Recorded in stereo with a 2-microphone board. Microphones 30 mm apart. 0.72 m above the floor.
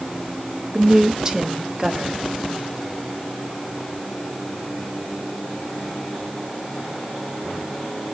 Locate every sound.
0.7 s a woman speaking: 25° right (ahead or behind), 1.3 m